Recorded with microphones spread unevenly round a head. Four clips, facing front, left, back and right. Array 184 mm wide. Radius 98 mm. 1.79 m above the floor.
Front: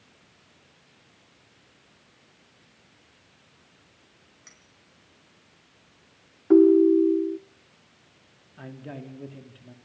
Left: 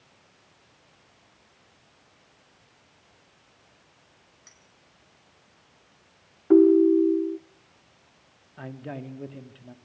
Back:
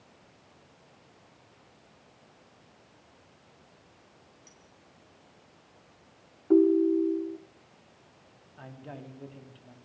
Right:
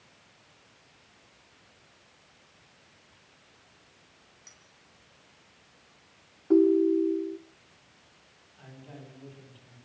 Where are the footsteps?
I don't hear footsteps.